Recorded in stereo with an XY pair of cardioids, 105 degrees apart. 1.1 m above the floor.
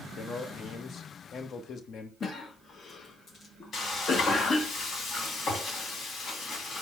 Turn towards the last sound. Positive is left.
turn(degrees=60)